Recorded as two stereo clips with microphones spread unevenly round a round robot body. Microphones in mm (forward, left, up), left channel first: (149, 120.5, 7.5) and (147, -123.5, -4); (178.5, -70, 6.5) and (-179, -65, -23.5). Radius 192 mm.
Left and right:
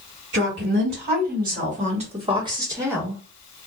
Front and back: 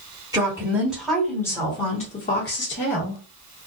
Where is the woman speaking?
110° right, 2 m; by 3.2 s 10° right, 1.6 m.